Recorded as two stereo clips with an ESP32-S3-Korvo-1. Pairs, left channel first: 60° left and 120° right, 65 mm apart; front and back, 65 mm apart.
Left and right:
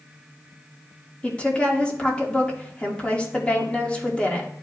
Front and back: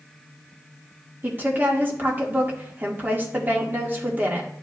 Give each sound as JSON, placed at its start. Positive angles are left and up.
{"t": 1.2, "sound": "a woman speaking", "azimuth_deg": 130, "distance_m": 1.5}